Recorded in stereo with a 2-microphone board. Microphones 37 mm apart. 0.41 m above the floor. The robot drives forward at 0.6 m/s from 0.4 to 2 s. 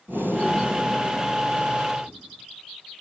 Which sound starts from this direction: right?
Breathing, at 0.1 s.